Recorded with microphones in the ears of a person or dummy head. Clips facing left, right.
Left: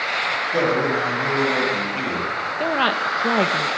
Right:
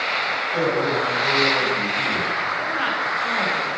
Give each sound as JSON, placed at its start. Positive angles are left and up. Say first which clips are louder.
{"t": 0.5, "sound": "a man speaking", "louder": "left 1 dB", "side_deg": 50, "distance_m": 8.0}
{"t": 2.6, "sound": "a woman speaking", "louder": "left 10 dB", "side_deg": 70, "distance_m": 1.4}